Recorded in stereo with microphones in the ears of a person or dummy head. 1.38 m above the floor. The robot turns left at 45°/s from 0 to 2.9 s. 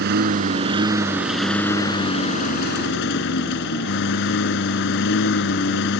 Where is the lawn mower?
115° right; by 6.0 s 115° left.